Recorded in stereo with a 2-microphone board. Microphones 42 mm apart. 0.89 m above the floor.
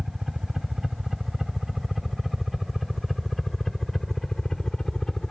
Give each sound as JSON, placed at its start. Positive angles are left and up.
{"t": 0.0, "sound": "a helicopter", "side_deg": -5}